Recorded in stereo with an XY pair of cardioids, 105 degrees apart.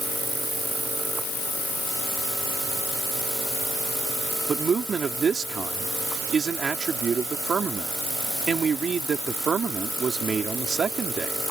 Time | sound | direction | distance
4.5 | a man speaking | 40° right | ?